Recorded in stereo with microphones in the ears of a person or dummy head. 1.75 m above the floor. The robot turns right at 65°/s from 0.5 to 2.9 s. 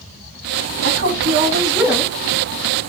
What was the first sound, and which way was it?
A woman speaking, 80° right.